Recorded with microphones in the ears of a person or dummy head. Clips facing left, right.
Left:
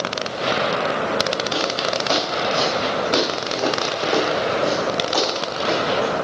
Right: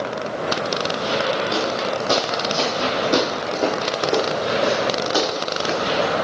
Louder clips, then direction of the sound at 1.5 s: Right 1 dB; 40° right (ahead or behind).